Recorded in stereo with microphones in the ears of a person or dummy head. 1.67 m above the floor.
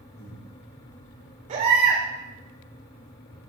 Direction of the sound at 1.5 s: 40° right (ahead or behind).